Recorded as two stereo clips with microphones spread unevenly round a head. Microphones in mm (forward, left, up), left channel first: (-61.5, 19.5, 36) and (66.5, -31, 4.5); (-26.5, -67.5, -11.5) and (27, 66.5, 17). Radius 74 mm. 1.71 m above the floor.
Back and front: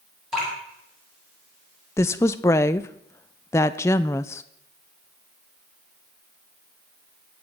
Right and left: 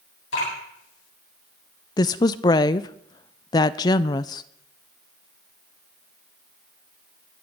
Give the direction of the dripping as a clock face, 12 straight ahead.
4 o'clock.